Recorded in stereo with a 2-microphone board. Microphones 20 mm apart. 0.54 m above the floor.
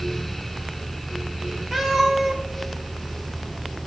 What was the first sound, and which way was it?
A cat meowing, 10° right (ahead or behind).